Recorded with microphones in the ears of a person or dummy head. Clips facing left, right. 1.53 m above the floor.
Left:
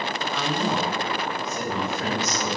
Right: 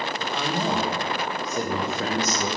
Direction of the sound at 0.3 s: 10° right (ahead or behind).